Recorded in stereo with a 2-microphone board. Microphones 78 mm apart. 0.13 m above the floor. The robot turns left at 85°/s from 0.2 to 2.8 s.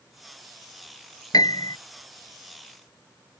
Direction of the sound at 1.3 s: 110° left.